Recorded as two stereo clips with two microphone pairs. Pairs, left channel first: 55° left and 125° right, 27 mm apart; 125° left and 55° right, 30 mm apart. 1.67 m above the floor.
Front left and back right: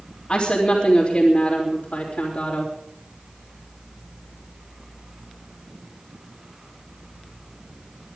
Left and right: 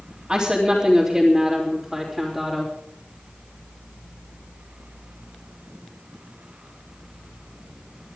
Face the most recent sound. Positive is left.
turn(degrees=30)